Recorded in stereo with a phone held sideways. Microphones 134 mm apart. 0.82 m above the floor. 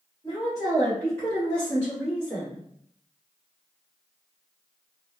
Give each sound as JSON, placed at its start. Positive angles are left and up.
{"t": 0.2, "sound": "a woman speaking", "side_deg": 30, "distance_m": 1.4}